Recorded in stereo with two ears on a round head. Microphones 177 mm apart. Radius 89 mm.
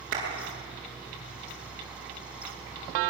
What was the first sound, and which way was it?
A clap, 45° right (ahead or behind).